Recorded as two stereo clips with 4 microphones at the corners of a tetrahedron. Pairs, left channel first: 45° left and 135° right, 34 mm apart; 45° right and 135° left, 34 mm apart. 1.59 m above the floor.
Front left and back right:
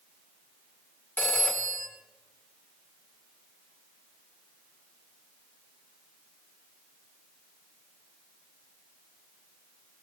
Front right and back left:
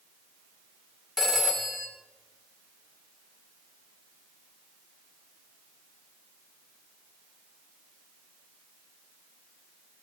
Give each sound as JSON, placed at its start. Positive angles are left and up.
{"t": 1.2, "sound": "a phone ringing", "azimuth_deg": 50, "distance_m": 3.0}